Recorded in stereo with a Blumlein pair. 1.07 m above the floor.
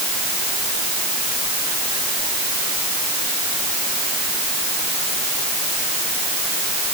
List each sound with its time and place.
Only background noise.